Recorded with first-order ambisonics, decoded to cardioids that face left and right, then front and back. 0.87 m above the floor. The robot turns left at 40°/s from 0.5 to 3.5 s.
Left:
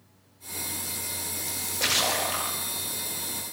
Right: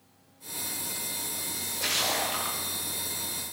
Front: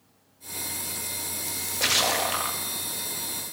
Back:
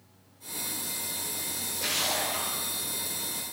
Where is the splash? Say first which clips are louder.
Left 4 dB, front 7 dB; 50° left, 1.4 m; by 2.6 s 5° left, 1.4 m.